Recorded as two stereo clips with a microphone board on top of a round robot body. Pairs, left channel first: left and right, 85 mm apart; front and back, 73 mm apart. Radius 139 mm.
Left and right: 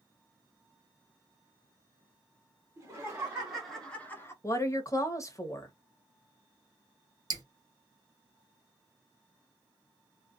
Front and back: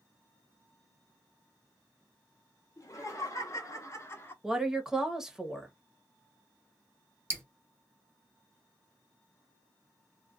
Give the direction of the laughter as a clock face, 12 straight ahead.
1 o'clock.